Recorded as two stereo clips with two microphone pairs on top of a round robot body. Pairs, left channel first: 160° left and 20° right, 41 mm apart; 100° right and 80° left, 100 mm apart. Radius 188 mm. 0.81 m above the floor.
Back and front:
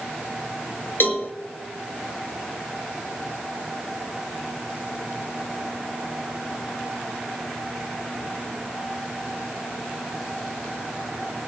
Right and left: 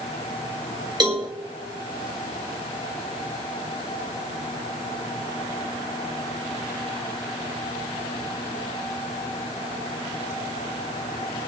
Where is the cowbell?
125° left, 1.8 m.